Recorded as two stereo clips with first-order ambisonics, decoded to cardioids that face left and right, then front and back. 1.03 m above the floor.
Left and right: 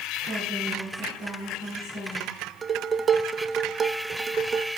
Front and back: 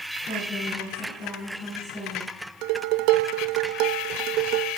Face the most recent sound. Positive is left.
turn(degrees=-165)